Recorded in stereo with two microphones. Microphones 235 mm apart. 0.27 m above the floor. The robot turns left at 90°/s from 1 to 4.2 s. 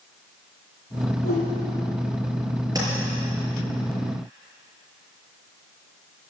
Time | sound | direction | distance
1.2 | a whoosh | 70° left (ahead or behind) | 5.5 m
2.8 | tapping | 15° right (ahead or behind) | 5.5 m